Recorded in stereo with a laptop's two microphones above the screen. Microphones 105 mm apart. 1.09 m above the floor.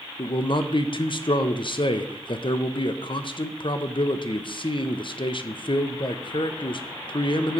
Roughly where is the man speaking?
Left.